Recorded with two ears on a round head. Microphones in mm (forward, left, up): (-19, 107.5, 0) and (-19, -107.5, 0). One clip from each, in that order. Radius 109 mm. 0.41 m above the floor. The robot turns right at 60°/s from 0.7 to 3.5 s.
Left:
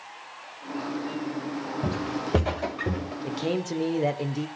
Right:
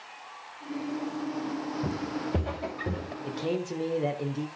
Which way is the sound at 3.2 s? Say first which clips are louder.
Left 2 dB; 5° left (ahead or behind).